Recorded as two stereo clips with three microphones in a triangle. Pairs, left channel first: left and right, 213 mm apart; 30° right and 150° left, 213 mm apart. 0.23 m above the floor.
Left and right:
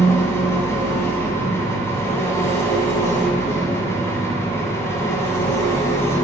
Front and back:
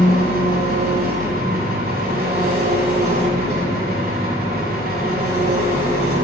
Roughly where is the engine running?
Behind.